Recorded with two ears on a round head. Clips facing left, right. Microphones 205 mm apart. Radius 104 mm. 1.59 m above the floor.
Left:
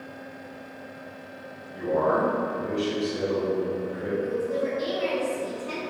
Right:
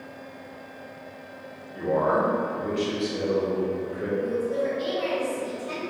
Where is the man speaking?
65° right (ahead or behind), 1.3 m; by 4.1 s 30° right (ahead or behind), 1.2 m.